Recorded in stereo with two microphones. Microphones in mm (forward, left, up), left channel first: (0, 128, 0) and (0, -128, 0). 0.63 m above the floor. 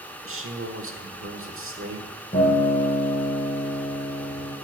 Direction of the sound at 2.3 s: 30° left (ahead or behind).